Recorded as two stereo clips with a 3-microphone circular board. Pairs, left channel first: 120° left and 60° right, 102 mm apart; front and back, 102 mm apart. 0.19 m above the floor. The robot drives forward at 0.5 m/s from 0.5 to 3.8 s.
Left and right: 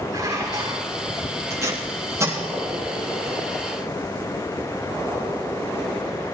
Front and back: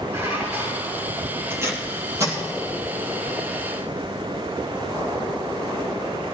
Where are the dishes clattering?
115° right, 6.5 m.